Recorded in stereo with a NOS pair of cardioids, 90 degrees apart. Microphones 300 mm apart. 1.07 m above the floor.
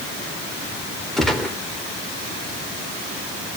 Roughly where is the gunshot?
Ahead.